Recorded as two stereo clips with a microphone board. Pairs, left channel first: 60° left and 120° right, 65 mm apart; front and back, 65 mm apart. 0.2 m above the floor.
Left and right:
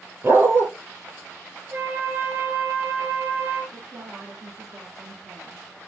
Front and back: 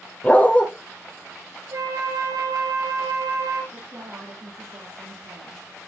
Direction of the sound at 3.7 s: 145° right.